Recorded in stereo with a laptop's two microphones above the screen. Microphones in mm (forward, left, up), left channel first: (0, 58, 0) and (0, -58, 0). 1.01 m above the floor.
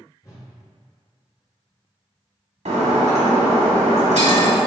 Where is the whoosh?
30° left (ahead or behind), 1.1 m.